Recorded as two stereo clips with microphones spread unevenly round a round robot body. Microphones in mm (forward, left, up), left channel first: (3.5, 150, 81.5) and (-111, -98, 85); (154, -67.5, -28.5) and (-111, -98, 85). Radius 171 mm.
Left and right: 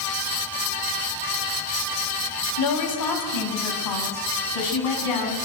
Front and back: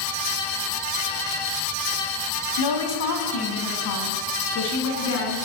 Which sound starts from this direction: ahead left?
A woman speaking, at 2.6 s.